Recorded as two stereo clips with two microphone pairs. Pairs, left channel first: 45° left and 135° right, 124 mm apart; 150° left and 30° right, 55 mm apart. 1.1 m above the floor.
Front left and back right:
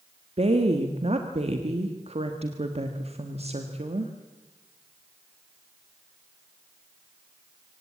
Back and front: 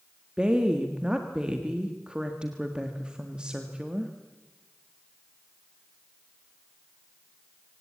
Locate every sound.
0.4 s a woman speaking: 105° right, 1.5 m